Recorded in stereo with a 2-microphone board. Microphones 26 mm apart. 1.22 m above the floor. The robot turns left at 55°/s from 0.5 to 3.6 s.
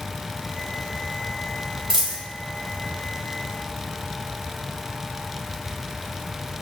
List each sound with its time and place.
1.9 s a dropped coin: 20° right (ahead or behind), 1.4 m; by 2.2 s 10° right (ahead or behind), 1.4 m